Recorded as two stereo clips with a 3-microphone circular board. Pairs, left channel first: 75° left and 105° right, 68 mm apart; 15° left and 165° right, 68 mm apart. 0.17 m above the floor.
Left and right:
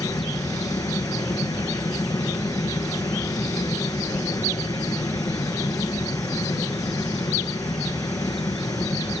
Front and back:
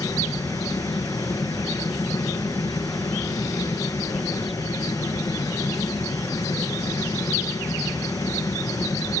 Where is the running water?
50° left, 7 m.